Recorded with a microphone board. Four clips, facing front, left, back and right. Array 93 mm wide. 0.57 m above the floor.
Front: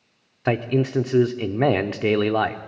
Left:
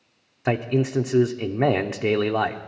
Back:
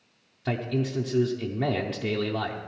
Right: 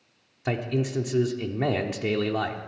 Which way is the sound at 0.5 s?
35° left.